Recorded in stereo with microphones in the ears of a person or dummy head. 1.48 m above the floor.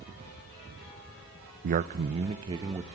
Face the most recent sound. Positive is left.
turn(degrees=-20)  # may be behind; listen again after turning